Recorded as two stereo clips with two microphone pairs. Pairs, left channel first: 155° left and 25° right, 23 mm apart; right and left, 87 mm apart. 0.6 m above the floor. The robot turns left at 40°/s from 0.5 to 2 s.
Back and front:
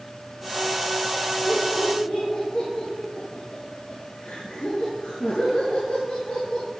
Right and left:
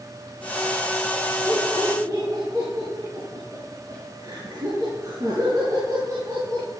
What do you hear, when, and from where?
1.5 s laughter: 155° left, 9 m; by 6.7 s 135° left, 9 m